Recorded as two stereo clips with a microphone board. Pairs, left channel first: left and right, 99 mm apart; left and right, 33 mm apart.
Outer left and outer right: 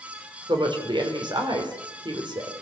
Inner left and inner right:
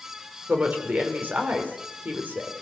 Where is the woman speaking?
50° right (ahead or behind), 4.5 m.